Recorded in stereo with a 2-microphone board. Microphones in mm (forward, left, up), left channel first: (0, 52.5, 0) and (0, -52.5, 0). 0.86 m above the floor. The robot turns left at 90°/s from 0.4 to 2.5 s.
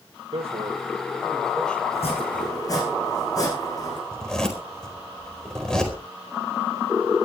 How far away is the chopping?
About 9 m.